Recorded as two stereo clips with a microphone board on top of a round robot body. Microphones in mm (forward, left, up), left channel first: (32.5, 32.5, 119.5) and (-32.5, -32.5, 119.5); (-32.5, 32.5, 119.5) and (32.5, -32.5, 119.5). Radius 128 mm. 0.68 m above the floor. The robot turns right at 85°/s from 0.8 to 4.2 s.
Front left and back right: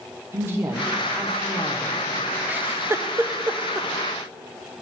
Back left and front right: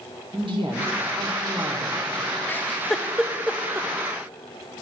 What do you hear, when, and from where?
0.3 s a woman speaking: 70° right, 2.5 m; by 2.0 s 30° left, 2.5 m
2.5 s a giggle: 175° left, 0.9 m; by 3.9 s 65° right, 0.9 m